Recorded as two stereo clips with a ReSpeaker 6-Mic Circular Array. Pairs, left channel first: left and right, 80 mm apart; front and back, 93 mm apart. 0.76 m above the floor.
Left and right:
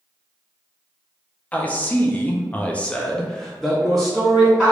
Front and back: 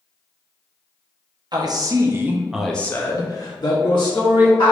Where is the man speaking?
160° left, 0.8 m; by 4.7 s 5° right, 1.3 m.